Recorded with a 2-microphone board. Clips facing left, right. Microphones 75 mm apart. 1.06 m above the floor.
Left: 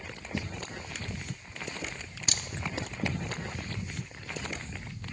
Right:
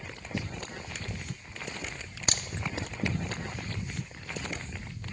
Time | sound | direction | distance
2.3 | a crack | 40° right (ahead or behind) | 0.6 m